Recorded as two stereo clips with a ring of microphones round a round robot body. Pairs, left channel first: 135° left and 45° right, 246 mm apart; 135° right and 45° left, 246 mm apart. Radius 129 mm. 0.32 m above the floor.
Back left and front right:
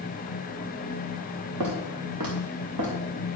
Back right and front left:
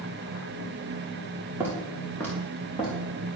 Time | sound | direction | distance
1.6 | footsteps | 35° right | 2.5 m